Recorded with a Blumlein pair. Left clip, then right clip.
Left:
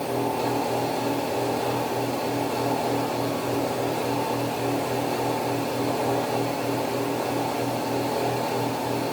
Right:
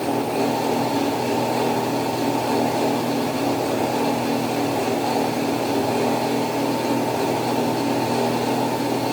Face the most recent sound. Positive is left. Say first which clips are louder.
# right 4 dB
turn(degrees=-40)